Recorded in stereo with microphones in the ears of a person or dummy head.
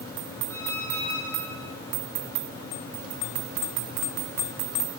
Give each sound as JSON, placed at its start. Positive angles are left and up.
{"t": 0.5, "sound": "a squeak", "side_deg": 15, "distance_m": 7.5}